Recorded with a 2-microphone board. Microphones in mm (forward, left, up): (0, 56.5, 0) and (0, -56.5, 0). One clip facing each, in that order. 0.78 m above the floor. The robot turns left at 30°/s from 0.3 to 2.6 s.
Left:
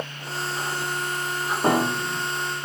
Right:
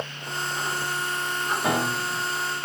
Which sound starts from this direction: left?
A piano, at 1.6 s.